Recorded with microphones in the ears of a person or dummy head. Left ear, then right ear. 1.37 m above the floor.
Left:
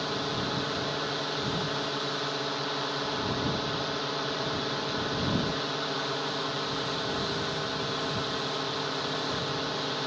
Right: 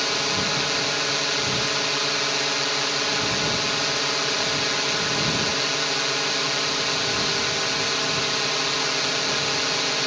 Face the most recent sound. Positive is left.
turn(degrees=-65)  # may be behind; listen again after turning